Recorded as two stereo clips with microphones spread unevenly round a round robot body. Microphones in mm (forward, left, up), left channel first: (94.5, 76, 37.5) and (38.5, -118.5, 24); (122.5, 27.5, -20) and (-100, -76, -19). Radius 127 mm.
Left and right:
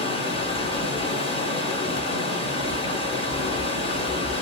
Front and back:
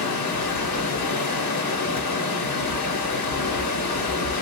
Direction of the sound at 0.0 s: 10° left.